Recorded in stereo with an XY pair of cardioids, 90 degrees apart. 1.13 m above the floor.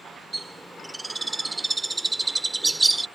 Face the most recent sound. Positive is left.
turn(degrees=-20)